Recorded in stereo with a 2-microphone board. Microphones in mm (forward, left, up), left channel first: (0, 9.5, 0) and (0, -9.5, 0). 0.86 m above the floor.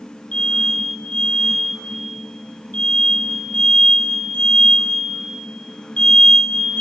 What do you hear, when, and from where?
0.3 s an alarm: 70° left (ahead or behind), 4.5 m